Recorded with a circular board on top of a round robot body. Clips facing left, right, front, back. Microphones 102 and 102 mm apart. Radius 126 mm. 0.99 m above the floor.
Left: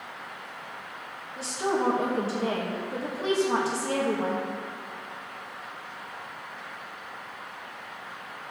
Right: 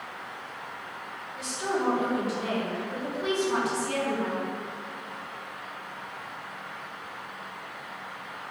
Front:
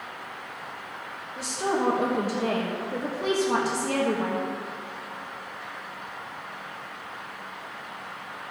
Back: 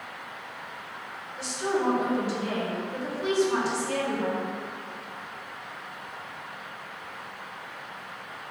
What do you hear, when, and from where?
1.4 s a woman speaking: 35° left, 1.7 m